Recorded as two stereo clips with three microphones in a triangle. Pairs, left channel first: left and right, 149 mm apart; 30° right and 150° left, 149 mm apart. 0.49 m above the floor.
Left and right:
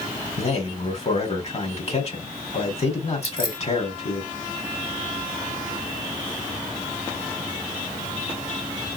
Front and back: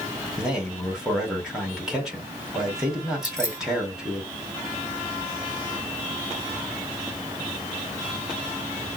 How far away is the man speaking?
About 2 m.